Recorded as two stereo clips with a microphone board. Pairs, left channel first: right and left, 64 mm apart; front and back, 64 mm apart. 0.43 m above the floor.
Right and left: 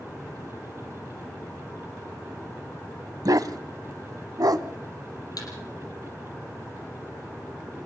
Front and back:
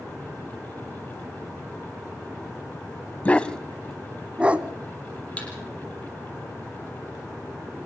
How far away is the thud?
About 5 m.